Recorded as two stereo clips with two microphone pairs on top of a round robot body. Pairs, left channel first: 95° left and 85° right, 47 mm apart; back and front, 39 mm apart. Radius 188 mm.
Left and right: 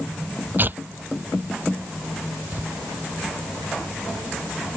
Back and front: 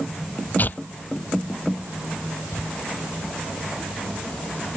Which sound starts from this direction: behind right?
Tearing paper, at 0.6 s.